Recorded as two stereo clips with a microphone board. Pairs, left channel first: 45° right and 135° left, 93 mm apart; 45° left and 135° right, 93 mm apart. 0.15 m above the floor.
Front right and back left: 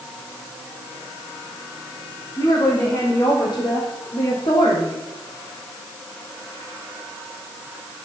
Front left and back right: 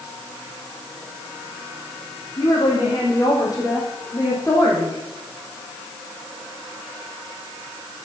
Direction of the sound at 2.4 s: Straight ahead.